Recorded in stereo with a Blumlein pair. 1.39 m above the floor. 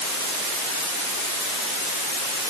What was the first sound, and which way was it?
Only background noise.